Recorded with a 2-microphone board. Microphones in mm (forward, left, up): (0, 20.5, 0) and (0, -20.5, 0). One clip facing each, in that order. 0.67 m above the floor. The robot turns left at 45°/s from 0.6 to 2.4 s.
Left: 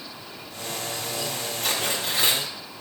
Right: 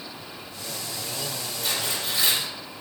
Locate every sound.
1.6 s tearing paper: 90° left, 0.8 m; by 2.4 s 55° left, 0.8 m